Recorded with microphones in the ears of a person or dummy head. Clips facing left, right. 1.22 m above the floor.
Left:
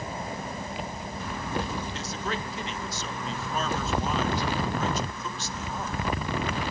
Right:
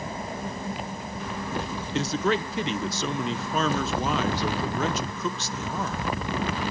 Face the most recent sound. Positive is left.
turn(degrees=-55)  # may be behind; listen again after turning